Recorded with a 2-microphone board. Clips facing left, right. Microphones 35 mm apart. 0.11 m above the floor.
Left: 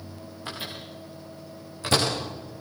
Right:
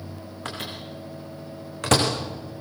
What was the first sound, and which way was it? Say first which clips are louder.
A microwave: right 2 dB; 75° right (ahead or behind).